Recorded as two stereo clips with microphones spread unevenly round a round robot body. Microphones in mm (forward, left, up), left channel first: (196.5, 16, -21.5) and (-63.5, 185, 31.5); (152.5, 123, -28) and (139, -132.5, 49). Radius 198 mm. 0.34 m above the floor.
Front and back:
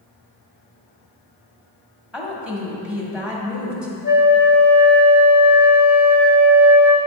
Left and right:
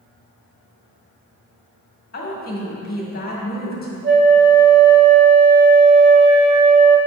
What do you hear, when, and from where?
2.1 s a woman speaking: 55° left, 1.9 m
4.0 s a flute: 50° right, 1.2 m